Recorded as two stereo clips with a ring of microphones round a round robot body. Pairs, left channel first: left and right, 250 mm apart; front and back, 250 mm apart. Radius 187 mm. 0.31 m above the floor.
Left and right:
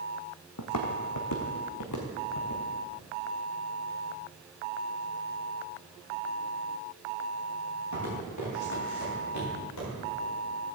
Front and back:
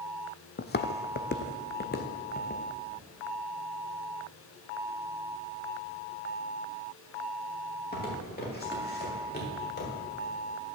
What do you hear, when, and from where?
0.6 s footsteps: 50° left, 0.7 m